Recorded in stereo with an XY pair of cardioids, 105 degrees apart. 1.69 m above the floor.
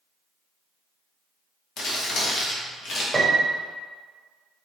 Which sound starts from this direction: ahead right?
A piano, at 3.1 s.